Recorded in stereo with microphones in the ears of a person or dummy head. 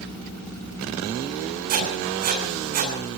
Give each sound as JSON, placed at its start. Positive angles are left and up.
{"t": 1.7, "sound": "writing", "side_deg": -45, "distance_m": 8.5}